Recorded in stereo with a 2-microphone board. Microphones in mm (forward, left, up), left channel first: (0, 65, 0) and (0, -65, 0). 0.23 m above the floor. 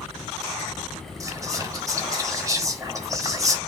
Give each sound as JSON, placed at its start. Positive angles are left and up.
{"t": 1.2, "sound": "whispering", "side_deg": -25, "distance_m": 1.1}